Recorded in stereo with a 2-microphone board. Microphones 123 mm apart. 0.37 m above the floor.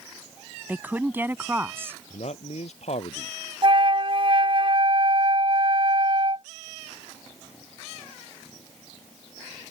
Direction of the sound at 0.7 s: 15° right (ahead or behind).